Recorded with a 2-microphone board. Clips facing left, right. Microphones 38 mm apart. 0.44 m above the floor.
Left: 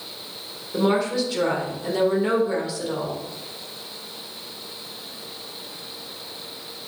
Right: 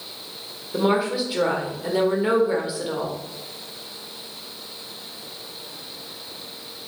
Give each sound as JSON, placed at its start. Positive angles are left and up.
{"t": 0.7, "sound": "a woman speaking", "side_deg": -15, "distance_m": 1.6}